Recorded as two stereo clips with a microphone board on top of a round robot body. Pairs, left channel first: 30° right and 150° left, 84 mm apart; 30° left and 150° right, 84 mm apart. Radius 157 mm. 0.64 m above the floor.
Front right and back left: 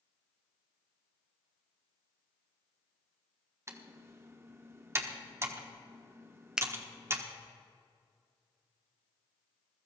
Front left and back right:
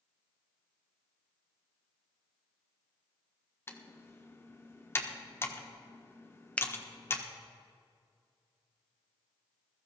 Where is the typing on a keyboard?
90° left, 1.3 m.